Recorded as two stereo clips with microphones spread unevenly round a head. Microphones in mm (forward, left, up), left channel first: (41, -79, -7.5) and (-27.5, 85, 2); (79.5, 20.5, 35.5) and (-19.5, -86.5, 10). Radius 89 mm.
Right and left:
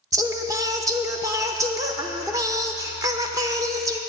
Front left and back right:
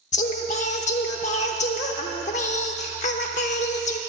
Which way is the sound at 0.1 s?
45° left.